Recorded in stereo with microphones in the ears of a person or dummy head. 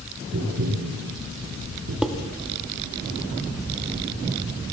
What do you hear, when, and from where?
0.3 s tapping: 70° right (ahead or behind), 6.5 m
2.0 s dishes clattering: centre (ahead or behind), 1.3 m